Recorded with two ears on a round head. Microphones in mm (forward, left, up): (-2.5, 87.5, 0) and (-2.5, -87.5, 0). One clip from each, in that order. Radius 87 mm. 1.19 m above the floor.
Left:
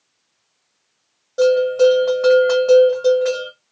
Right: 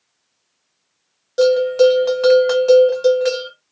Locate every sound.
1.4 s a bell: 75° right (ahead or behind), 1.9 m